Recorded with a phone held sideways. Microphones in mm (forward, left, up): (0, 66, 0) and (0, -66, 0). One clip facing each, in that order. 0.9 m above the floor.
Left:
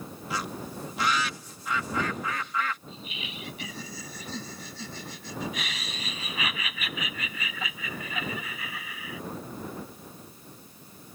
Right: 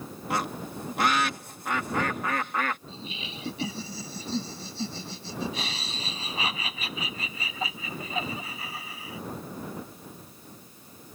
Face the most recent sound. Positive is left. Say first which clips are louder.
# right 1 dB
turn(degrees=-30)  # may be behind; listen again after turning